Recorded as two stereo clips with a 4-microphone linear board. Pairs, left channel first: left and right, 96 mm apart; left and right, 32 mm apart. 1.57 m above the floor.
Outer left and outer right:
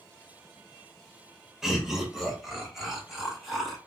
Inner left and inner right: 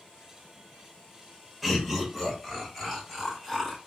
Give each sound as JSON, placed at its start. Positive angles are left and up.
{"t": 1.6, "sound": "laughter", "side_deg": -5, "distance_m": 1.9}